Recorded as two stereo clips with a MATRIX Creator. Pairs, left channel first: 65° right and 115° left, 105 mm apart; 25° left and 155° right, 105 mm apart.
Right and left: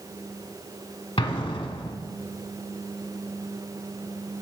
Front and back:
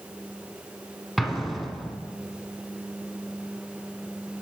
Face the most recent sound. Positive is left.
turn(degrees=-70)